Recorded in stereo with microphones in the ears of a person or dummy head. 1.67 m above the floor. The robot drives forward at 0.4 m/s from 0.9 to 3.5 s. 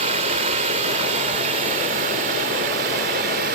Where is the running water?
40° right (ahead or behind), 1.9 m; by 3.6 s 45° right (ahead or behind), 1.7 m.